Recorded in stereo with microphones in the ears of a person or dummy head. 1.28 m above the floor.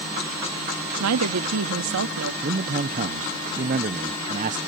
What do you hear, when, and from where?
1.0 s a woman speaking: 85° right
2.4 s a man speaking: 40° right (ahead or behind)